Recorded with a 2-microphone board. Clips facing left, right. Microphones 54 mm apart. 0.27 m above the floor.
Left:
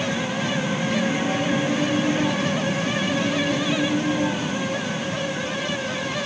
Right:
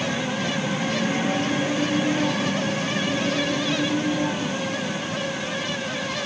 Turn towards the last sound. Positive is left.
No sound to turn to.